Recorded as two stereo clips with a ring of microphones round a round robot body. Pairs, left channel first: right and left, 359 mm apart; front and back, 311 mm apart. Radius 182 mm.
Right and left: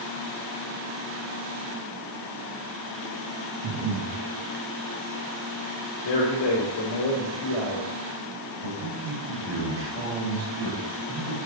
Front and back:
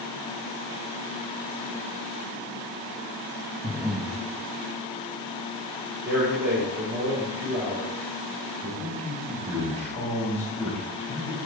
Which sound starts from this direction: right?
A man speaking, at 6.0 s.